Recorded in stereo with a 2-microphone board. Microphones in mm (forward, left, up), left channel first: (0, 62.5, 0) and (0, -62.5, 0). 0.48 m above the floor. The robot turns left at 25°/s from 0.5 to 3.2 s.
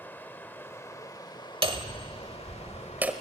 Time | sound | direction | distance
0.0 | running water | 160° left | 1.0 m
1.6 | hammering | 130° right | 1.3 m